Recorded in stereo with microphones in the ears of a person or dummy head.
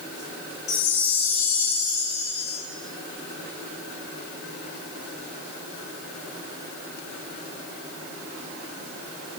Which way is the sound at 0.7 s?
40° left (ahead or behind).